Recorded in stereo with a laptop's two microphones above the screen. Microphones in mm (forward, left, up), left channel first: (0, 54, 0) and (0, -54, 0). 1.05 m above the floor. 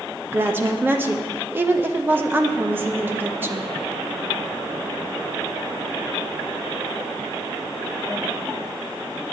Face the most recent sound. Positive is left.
turn(degrees=-20)  # may be behind; listen again after turning